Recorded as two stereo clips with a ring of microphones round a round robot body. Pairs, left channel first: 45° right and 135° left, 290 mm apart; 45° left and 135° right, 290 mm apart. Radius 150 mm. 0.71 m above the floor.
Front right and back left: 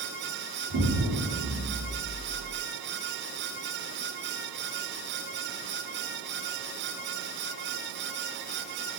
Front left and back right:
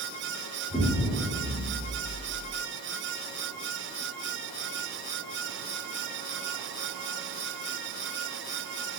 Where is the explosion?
135° left, 1.1 m.